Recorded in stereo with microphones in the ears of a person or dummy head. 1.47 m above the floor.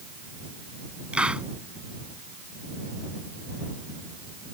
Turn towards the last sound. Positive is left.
turn(degrees=-15)  # may be behind; listen again after turning